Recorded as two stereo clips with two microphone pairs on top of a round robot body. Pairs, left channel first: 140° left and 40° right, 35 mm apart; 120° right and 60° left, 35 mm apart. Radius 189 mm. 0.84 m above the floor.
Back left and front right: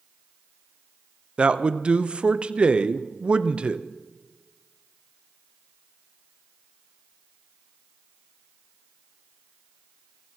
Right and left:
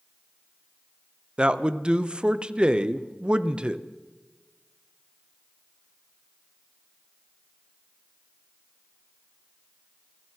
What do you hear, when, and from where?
1.4 s a man speaking: 5° left, 1.0 m